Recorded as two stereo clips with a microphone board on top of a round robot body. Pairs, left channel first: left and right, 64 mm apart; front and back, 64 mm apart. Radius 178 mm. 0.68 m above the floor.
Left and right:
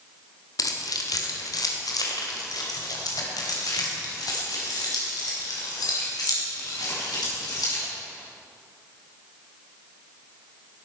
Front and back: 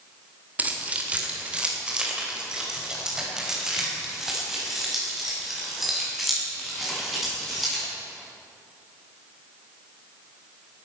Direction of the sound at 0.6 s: 115° left.